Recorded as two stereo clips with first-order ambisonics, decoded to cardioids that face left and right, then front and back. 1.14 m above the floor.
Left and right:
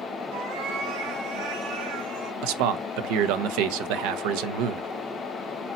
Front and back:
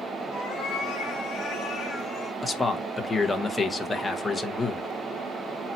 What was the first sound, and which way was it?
A cat meowing, 75° right.